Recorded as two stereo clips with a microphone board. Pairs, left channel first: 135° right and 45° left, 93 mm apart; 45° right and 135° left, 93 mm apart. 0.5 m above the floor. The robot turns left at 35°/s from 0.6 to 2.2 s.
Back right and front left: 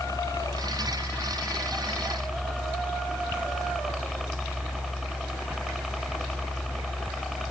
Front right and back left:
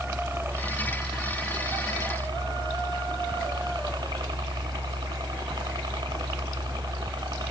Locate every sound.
0.0 s a helicopter: 170° right; by 7.5 s 135° left